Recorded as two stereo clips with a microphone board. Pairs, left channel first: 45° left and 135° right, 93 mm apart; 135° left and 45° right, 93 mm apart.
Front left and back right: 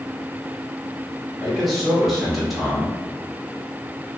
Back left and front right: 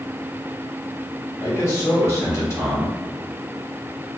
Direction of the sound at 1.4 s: 135° left.